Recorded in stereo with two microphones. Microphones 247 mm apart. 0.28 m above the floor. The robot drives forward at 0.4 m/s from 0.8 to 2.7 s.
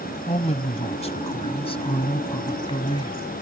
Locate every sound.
0.3 s a man speaking: 25° left (ahead or behind); by 3.2 s 20° left (ahead or behind)